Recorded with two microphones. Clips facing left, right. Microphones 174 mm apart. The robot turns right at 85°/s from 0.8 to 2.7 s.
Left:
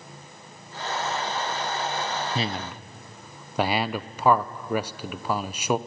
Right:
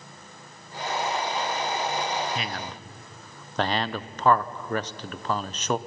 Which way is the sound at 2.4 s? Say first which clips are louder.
Left 4 dB; 35° left (ahead or behind).